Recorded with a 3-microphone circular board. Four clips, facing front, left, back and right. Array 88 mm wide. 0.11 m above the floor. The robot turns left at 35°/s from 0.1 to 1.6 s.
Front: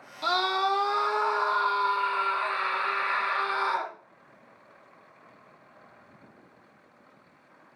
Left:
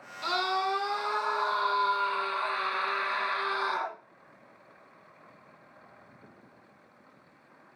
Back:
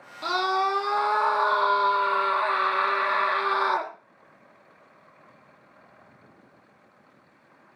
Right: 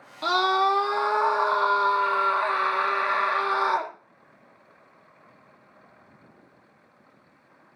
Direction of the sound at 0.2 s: 100° right.